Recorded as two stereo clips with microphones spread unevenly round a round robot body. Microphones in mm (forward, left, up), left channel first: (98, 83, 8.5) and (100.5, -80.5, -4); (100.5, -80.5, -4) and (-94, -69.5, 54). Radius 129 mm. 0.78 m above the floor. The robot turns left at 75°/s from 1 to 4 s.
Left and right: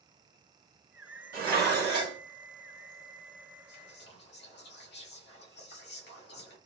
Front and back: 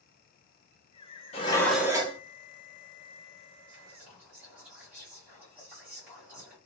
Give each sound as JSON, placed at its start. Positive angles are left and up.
{"t": 1.3, "sound": "dishes clattering", "azimuth_deg": -55, "distance_m": 1.1}
{"t": 3.7, "sound": "whispering", "azimuth_deg": 110, "distance_m": 1.6}